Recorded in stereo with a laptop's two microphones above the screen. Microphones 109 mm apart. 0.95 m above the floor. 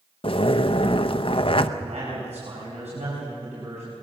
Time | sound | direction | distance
0.2 | a zipper | 55° left (ahead or behind) | 0.7 m
1.8 | a man speaking | 85° right | 6 m